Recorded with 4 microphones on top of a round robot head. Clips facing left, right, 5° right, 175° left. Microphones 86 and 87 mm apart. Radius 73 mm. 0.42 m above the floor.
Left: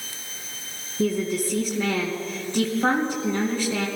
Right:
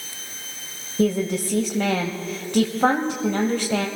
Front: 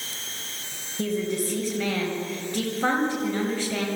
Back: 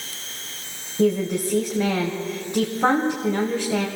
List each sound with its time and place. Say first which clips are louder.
1.0 s a woman speaking: right 2 dB, back 6 dB; 110° right, 2 m